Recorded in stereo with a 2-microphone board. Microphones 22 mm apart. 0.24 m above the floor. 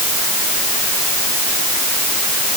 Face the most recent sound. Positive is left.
No sound to turn to.